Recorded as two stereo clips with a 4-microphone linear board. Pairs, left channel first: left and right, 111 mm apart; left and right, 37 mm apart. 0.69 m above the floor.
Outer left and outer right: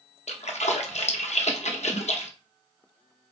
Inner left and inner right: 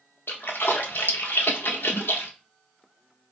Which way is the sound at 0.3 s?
85° left.